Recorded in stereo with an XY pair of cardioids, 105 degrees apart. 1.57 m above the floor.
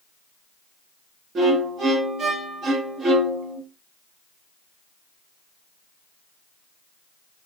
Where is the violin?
55° right, 1.7 m.